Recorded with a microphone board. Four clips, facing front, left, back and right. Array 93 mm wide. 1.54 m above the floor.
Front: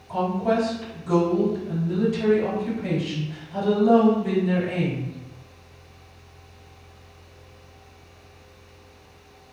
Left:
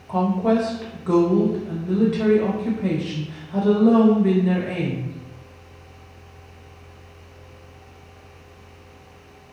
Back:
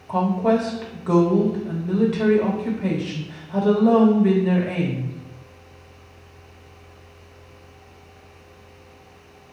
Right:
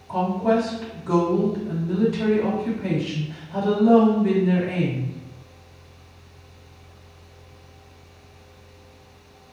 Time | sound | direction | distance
0.1 | a woman speaking | 155° left | 1.4 m